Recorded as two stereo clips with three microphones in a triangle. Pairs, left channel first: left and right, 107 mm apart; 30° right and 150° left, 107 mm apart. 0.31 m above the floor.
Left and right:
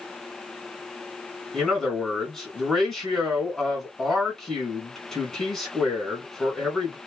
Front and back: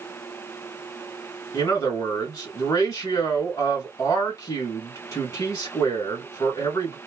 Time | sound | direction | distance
1.5 | a man speaking | 5° left | 1.7 m